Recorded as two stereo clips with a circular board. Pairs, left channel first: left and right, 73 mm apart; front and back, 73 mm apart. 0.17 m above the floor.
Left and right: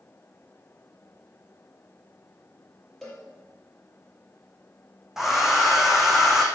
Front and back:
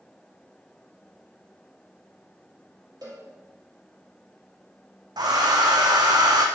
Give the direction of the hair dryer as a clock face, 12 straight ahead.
6 o'clock.